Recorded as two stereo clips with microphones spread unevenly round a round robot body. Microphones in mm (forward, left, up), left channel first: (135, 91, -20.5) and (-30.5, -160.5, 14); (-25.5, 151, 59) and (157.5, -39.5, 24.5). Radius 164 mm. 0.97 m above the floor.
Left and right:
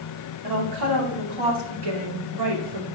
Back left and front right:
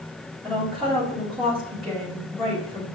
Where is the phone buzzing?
No phone buzzing in this recording.